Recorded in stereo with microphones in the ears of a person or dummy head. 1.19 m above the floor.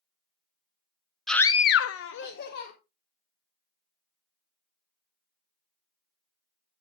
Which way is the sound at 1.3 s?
Centre (ahead or behind).